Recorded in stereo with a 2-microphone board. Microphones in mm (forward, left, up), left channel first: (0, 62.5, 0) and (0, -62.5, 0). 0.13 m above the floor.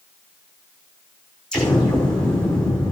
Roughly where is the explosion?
Centre.